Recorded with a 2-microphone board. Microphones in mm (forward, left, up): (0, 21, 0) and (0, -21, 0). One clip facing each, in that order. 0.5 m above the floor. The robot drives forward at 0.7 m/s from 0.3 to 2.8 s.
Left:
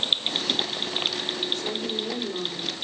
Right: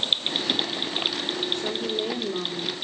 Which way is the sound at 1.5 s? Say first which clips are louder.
Right 2 dB; 25° right (ahead or behind).